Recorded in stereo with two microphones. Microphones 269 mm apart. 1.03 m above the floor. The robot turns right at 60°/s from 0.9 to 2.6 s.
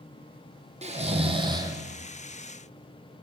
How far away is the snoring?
About 0.6 m.